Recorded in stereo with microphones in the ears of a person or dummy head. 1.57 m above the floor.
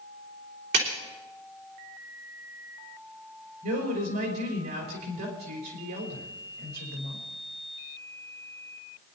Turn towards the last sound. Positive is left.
turn(degrees=-55)  # may be behind; listen again after turning